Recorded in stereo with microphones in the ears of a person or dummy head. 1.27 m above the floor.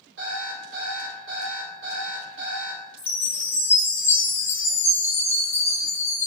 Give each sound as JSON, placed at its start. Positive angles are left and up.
{"t": 0.2, "sound": "an alarm clock", "side_deg": -60, "distance_m": 1.5}
{"t": 3.0, "sound": "a chime", "side_deg": 15, "distance_m": 0.7}